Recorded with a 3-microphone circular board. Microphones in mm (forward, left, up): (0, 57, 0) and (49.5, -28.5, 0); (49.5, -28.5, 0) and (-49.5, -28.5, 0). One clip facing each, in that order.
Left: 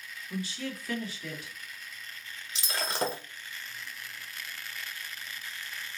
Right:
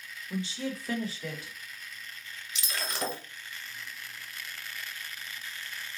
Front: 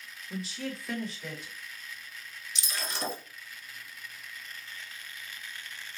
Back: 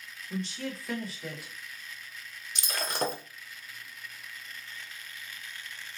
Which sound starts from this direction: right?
A woman speaking, at 0.3 s.